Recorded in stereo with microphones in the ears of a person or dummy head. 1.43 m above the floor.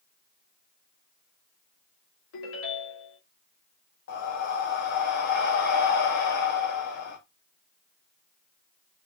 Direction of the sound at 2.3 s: 75° left (ahead or behind).